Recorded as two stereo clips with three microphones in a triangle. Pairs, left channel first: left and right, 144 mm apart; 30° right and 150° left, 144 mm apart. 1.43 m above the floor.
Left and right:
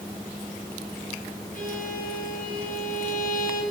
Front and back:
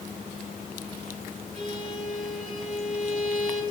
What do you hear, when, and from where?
1.5 s a violin: 110° left, 6 m